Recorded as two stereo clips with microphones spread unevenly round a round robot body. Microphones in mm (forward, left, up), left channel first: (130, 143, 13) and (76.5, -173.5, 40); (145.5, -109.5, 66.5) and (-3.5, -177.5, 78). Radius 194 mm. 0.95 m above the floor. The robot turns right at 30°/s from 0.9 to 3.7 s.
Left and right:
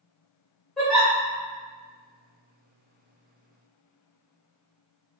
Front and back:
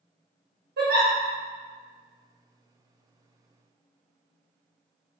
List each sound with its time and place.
0.8 s a giggle: 170° left, 0.5 m; by 1.1 s 175° left, 0.5 m